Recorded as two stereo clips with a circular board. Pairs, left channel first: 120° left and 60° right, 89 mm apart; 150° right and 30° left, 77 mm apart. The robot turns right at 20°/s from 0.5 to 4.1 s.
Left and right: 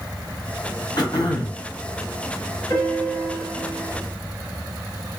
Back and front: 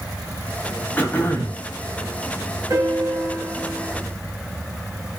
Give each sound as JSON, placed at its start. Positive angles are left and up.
{"t": 1.0, "sound": "throat clearing", "azimuth_deg": 145, "distance_m": 0.7}
{"t": 2.7, "sound": "a piano", "azimuth_deg": 75, "distance_m": 1.7}